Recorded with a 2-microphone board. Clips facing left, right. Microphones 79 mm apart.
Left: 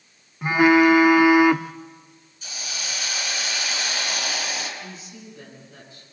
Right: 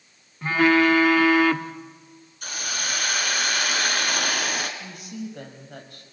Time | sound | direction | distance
0.4 | a phone buzzing | 15° left (ahead or behind) | 0.9 m
2.4 | a hiss | 55° right (ahead or behind) | 3 m
4.8 | a woman speaking | 60° right (ahead or behind) | 6 m